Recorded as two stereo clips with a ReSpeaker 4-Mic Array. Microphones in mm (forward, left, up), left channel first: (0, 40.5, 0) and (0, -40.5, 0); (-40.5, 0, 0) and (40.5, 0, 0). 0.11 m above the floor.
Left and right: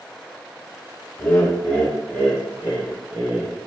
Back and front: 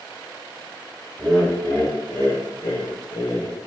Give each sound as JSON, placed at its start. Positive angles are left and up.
{"t": 1.2, "sound": "laughter", "azimuth_deg": 100, "distance_m": 1.6}